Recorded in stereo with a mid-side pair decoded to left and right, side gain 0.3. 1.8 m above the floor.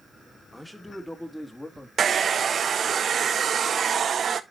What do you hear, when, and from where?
0.5 s a man speaking: straight ahead, 2.5 m; by 1.9 s 30° left, 3 m
2.0 s a hair dryer: 65° right, 0.7 m